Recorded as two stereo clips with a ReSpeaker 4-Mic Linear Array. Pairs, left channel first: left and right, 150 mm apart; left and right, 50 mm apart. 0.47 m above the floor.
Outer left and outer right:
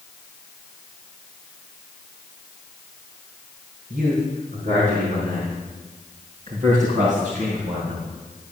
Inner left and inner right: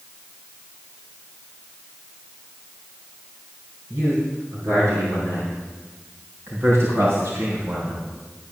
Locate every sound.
3.9 s a man speaking: 80° right, 4 m; by 8.0 s 55° right (ahead or behind), 2 m